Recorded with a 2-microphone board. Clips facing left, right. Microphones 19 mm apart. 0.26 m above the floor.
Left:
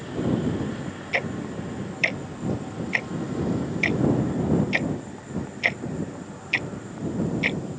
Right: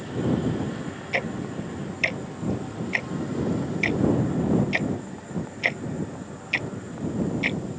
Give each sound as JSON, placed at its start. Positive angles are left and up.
{"t": 1.1, "sound": "ticking", "side_deg": 5}